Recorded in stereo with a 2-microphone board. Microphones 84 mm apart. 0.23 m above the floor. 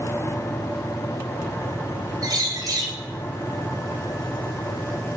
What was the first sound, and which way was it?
A bird, 40° right (ahead or behind).